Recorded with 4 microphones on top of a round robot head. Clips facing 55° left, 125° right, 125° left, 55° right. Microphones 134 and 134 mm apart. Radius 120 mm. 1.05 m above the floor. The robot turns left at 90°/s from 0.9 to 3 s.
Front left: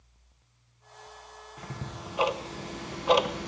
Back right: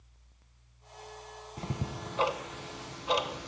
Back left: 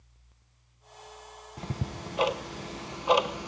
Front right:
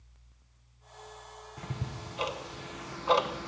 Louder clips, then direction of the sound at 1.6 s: Back right 3 dB, back left 4 dB; 175° right.